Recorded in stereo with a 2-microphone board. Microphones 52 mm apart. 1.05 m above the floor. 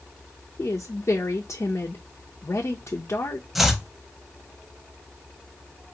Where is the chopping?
Centre (ahead or behind), 0.8 m.